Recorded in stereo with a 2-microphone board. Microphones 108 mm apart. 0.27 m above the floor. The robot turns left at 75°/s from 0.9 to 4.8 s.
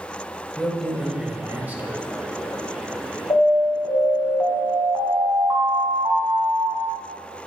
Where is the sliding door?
I don't hear a sliding door.